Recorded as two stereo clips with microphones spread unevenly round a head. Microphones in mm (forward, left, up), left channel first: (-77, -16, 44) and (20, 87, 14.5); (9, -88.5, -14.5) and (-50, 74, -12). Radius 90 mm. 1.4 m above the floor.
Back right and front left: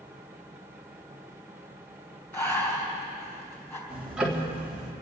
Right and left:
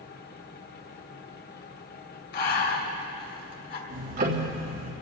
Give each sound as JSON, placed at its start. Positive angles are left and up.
{"t": 0.0, "sound": "a fan", "azimuth_deg": -35, "distance_m": 0.9}
{"t": 2.3, "sound": "breathing", "azimuth_deg": -60, "distance_m": 2.5}
{"t": 3.9, "sound": "ticking", "azimuth_deg": 135, "distance_m": 2.5}